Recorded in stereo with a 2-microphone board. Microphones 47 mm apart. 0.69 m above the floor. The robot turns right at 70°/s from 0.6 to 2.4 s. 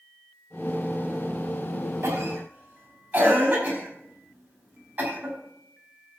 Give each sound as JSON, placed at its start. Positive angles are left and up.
{"t": 2.0, "sound": "a cough", "side_deg": -60, "distance_m": 4.5}